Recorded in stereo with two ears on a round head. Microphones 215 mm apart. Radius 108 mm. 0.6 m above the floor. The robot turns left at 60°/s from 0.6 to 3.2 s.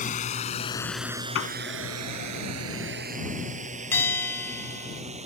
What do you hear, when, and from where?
0.0 s a drone: 30° left (ahead or behind); by 5.3 s 30° right (ahead or behind)
1.4 s a piano: 60° left (ahead or behind); by 1.6 s 75° left (ahead or behind)
3.9 s a bell: 10° left (ahead or behind)